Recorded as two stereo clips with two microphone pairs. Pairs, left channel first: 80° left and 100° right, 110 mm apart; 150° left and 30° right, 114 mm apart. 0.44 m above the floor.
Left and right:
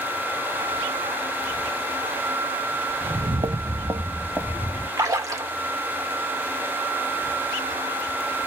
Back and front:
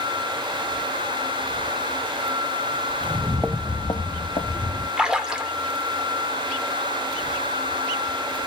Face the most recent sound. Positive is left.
turn(degrees=-105)